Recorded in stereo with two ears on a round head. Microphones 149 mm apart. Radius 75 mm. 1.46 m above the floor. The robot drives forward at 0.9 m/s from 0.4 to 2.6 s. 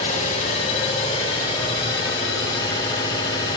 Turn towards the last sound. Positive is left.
turn(degrees=25)  # may be behind; listen again after turning